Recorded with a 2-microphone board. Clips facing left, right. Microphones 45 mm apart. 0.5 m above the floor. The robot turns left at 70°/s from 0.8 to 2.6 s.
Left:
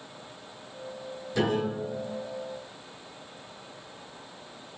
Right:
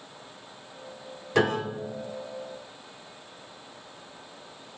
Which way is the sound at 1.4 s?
95° right.